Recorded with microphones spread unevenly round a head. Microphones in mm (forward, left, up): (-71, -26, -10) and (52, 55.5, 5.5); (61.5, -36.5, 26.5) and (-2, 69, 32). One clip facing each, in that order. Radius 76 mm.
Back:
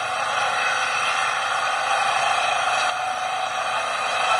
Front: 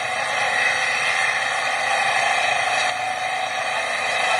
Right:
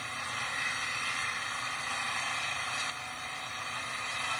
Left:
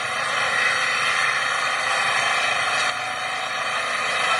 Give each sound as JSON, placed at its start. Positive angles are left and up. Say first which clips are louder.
{"t": 0.0, "sound": "an engine running", "louder": "even, left 14 dB", "azimuth_deg": 110}